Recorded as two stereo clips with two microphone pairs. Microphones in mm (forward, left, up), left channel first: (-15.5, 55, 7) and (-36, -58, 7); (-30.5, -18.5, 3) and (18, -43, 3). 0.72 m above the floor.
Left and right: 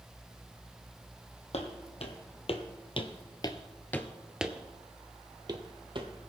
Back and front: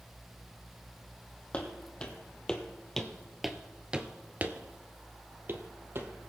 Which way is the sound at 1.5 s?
85° left.